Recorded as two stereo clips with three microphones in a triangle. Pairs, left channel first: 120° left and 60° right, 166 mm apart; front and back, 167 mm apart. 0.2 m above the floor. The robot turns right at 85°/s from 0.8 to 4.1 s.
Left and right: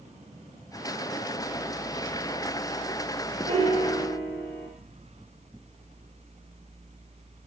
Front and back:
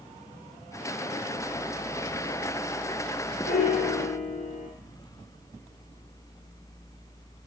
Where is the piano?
15° right, 0.7 m; by 4.7 s 35° left, 0.7 m.